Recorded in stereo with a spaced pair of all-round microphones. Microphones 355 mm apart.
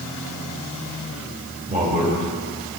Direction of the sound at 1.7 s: 25° right (ahead or behind).